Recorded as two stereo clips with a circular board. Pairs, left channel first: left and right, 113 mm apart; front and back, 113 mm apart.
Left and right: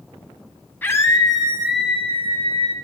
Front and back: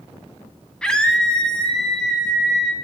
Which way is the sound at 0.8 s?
65° left.